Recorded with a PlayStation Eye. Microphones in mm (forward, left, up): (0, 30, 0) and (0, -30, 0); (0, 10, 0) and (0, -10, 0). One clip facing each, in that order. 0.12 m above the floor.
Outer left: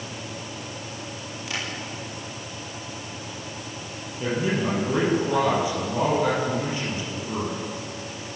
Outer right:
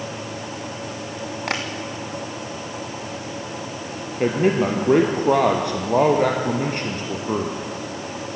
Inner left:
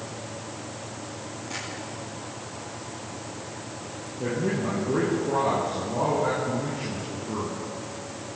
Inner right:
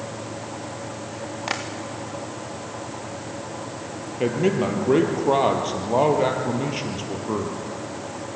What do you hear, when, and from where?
1.5 s tapping: 65° right (ahead or behind), 4 m
4.2 s a man speaking: 65° right (ahead or behind), 3.5 m